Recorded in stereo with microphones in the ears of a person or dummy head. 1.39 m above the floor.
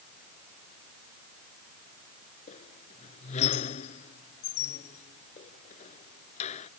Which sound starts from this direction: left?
A squeak, at 2.5 s.